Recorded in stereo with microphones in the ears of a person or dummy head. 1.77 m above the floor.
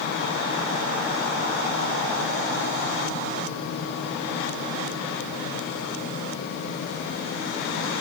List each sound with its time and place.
Only background noise.